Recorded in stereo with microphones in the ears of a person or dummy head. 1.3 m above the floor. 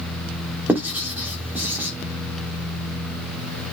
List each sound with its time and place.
0.7 s writing: 10° right (ahead or behind), 3 m